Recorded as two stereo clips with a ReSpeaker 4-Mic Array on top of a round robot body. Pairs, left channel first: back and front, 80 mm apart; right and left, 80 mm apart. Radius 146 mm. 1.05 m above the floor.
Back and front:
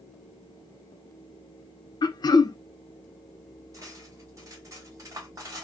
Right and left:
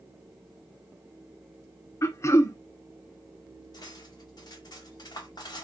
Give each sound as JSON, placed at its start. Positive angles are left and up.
{"t": 2.0, "sound": "throat clearing", "azimuth_deg": -145, "distance_m": 0.5}
{"t": 3.7, "sound": "cutlery clinking", "azimuth_deg": -50, "distance_m": 0.7}